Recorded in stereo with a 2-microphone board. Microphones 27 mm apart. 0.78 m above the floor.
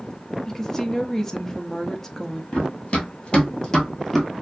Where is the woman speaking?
15° left (ahead or behind), 0.6 m.